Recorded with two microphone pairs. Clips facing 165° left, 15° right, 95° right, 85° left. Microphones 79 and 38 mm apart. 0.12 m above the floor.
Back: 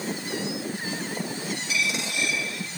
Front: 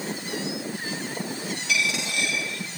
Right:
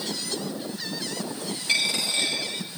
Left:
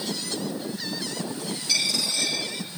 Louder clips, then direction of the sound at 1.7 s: Front 3 dB, right 2 dB; 40° right.